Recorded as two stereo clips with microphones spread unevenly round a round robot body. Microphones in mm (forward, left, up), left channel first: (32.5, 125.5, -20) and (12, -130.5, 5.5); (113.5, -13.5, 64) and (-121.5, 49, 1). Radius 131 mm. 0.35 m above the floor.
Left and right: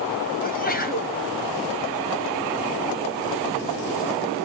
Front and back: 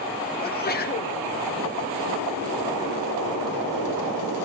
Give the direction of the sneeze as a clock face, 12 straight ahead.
11 o'clock.